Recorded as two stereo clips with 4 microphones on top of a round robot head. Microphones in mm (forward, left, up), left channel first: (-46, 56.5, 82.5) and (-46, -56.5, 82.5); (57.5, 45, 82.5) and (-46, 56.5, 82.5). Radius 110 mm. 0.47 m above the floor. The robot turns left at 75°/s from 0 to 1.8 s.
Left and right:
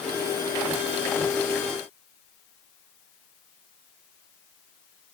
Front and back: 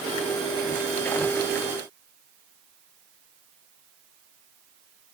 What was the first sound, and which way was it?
Only background noise.